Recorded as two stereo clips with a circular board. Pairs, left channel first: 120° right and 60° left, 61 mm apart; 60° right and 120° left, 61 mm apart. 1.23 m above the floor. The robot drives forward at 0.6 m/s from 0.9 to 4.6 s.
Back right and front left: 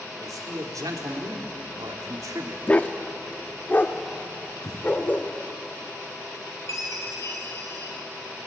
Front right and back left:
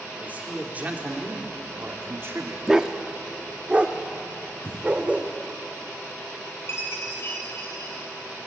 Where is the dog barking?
170° right, 0.8 m; by 5.3 s 175° right, 1.7 m.